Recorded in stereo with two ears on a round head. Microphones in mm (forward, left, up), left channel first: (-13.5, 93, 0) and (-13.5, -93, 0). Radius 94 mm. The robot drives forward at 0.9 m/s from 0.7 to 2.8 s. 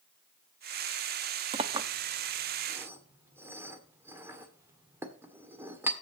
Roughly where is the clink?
Right.